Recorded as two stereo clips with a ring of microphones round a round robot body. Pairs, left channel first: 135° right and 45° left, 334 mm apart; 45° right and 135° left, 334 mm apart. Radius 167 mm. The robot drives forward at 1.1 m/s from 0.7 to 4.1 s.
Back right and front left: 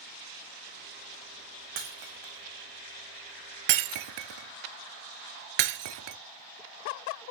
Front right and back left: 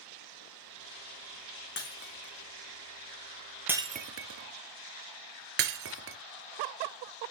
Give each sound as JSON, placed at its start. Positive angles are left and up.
{"t": 1.8, "sound": "breaking glass", "azimuth_deg": 15, "distance_m": 3.0}